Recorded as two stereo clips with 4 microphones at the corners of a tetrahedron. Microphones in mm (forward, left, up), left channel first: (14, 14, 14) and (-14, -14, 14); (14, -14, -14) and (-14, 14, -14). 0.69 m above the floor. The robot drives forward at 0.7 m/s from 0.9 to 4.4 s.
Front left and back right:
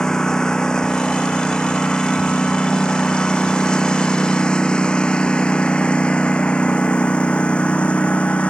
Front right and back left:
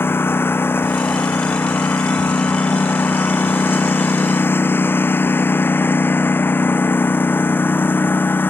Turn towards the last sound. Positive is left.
turn(degrees=-15)